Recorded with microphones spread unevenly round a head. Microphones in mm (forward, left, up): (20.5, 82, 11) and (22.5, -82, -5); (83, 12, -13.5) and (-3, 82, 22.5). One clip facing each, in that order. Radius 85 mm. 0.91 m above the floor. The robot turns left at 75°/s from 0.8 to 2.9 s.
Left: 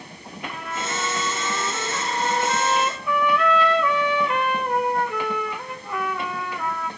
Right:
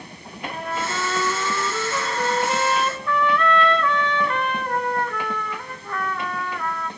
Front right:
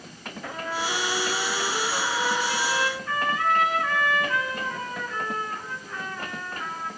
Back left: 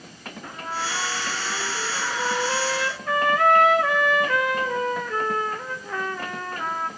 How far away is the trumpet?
About 1.6 m.